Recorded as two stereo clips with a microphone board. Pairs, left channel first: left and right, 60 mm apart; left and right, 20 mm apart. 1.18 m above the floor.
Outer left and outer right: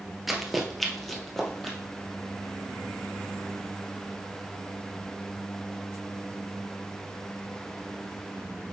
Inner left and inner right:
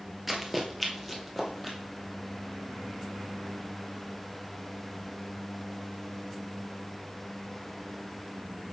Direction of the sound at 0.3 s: 5° right (ahead or behind).